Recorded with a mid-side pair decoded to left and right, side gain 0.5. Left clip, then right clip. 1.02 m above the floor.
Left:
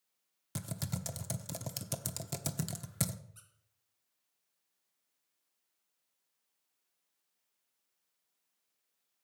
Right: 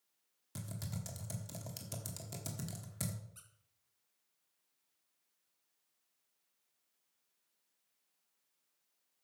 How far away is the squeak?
About 3 m.